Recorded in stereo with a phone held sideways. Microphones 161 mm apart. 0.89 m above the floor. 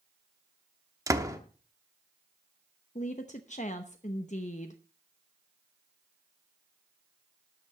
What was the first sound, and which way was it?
A door slam, 20° right (ahead or behind).